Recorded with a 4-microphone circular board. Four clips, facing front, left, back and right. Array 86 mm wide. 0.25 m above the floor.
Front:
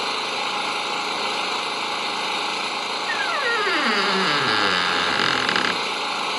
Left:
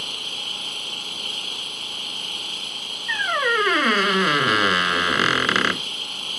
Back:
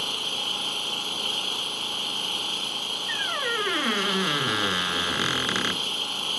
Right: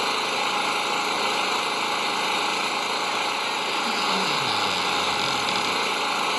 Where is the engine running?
50° right.